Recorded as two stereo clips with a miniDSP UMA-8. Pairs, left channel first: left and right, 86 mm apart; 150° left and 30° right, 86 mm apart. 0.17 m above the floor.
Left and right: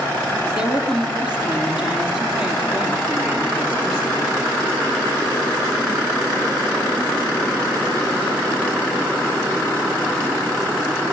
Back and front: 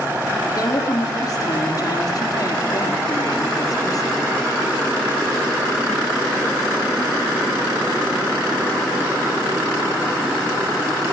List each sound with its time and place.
0.5 s a woman speaking: 170° right, 6.5 m